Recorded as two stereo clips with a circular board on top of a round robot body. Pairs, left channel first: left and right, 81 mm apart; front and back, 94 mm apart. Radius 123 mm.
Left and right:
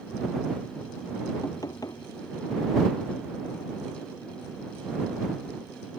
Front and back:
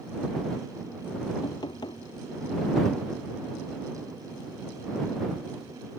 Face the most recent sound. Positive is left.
turn(degrees=45)